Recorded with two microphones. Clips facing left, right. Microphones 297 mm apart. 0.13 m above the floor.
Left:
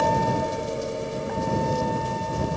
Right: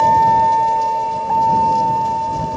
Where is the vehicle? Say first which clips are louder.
Right 5 dB; 10° left (ahead or behind); by 2.6 s 25° left (ahead or behind).